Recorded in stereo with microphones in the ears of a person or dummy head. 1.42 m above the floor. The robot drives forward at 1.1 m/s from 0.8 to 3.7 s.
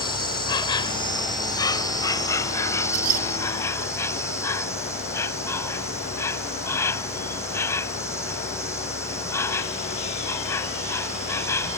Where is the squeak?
50° right (ahead or behind).